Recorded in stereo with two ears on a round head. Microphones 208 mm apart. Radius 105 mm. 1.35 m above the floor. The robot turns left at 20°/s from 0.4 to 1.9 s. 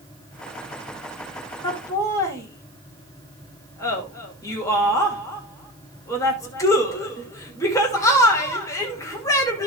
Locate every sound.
1.6 s laughter: 20° left (ahead or behind), 2.5 m; by 9.7 s 15° left (ahead or behind), 2.5 m